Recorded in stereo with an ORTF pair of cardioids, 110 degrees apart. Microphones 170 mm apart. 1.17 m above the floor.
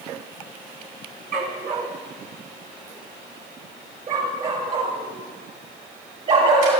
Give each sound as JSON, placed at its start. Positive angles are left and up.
{"t": 1.3, "sound": "a dog barking", "azimuth_deg": -55, "distance_m": 3.5}